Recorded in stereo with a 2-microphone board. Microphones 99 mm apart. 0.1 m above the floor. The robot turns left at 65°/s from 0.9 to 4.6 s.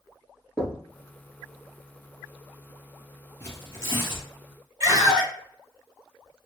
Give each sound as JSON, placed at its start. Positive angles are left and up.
{"t": 0.6, "sound": "knocking", "side_deg": 0, "distance_m": 1.1}
{"t": 3.4, "sound": "tearing paper", "azimuth_deg": 155, "distance_m": 2.0}
{"t": 4.8, "sound": "a scream", "side_deg": -30, "distance_m": 1.8}